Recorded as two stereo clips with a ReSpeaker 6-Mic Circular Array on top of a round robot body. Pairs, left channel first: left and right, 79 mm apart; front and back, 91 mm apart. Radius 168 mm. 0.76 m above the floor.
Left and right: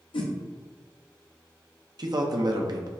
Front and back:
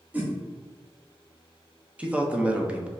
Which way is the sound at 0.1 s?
105° left.